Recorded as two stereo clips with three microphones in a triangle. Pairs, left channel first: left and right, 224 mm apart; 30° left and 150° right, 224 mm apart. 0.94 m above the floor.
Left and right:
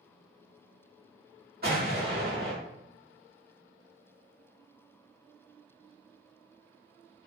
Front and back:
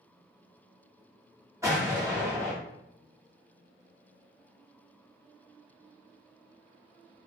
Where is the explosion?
75° right, 1.0 m.